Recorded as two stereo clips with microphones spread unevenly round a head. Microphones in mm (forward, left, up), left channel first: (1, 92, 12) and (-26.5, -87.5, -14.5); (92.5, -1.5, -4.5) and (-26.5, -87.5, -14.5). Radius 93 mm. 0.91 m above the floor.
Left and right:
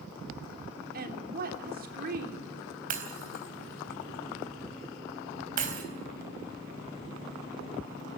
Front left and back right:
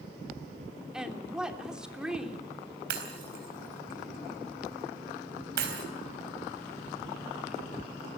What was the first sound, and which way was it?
A woman speaking, 60° right.